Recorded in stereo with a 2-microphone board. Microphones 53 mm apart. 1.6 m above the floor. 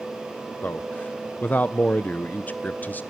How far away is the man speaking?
About 0.5 m.